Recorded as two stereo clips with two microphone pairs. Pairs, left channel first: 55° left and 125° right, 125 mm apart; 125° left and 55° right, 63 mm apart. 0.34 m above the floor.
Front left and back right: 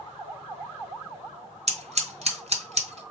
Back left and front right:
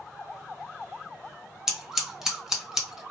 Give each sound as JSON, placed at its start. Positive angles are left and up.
{"t": 1.7, "sound": "scissors", "azimuth_deg": -135, "distance_m": 2.0}